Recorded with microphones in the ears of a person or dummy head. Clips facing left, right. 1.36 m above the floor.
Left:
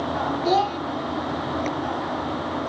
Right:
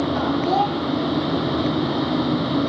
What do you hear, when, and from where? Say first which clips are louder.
0.5 s a child speaking: right 1 dB; 20° left (ahead or behind), 0.5 m